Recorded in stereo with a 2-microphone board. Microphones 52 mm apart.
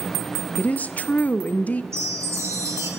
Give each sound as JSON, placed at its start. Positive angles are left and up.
{"t": 0.6, "sound": "a woman speaking", "side_deg": 30, "distance_m": 0.5}
{"t": 1.9, "sound": "a chime", "side_deg": -65, "distance_m": 3.0}